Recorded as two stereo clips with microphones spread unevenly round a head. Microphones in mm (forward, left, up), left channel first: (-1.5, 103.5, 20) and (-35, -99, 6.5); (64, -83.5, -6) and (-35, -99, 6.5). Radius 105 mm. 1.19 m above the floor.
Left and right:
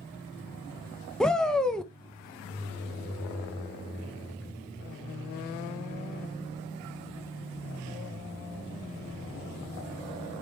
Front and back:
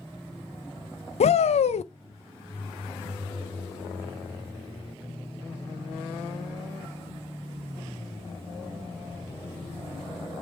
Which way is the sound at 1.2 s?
5° right.